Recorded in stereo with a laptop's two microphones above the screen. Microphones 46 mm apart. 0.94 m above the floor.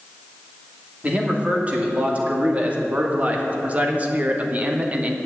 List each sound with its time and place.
1.0 s a man speaking: 25° right (ahead or behind), 2.5 m